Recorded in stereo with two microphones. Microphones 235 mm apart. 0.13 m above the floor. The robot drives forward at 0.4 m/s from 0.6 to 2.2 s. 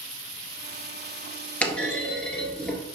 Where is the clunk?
5° left (ahead or behind), 1.2 m.